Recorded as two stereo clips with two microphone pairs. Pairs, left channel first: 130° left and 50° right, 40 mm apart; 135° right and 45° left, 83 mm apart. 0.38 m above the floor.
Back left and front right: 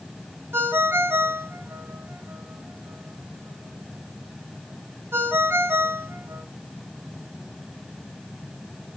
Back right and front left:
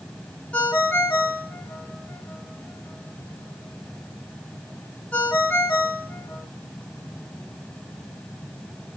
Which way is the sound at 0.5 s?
65° right.